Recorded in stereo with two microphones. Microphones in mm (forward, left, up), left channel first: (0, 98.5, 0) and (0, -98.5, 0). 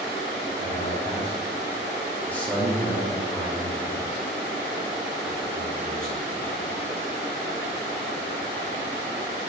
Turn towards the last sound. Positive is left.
turn(degrees=-50)  # may be behind; listen again after turning